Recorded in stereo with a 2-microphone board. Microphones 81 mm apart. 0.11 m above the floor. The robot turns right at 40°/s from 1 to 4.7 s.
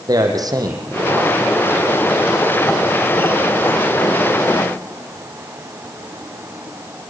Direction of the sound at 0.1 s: 50° right (ahead or behind).